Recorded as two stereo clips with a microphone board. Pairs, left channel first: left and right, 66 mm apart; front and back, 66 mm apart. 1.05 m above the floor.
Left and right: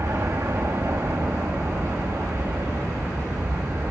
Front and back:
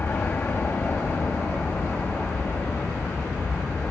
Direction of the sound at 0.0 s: 55° right.